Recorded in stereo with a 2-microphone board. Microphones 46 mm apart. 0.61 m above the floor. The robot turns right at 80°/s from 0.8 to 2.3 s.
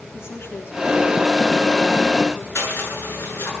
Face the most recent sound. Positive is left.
turn(degrees=65)  # may be behind; listen again after turning